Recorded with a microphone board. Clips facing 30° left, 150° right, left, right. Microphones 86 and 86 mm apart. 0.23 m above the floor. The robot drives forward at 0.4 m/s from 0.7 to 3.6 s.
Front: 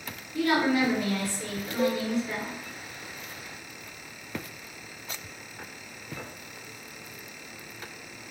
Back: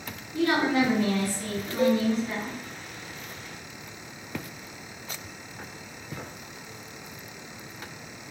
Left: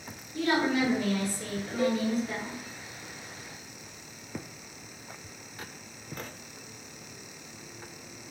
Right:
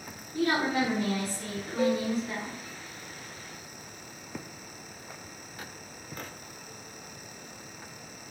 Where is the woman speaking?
85° right, 1.8 m; by 2.6 s 120° right, 1.9 m.